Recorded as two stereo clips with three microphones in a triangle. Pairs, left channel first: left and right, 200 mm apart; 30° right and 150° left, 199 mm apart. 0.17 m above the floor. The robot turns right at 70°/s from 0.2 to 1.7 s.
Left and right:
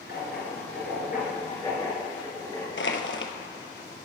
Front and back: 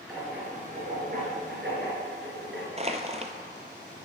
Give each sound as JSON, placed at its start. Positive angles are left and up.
{"t": 0.1, "sound": "writing", "azimuth_deg": 60, "distance_m": 3.5}
{"t": 2.8, "sound": "crushing", "azimuth_deg": 95, "distance_m": 0.9}